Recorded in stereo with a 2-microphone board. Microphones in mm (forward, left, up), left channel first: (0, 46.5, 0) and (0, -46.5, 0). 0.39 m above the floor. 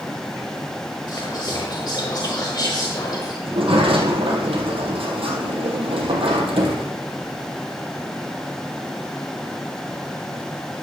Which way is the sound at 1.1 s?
50° left (ahead or behind).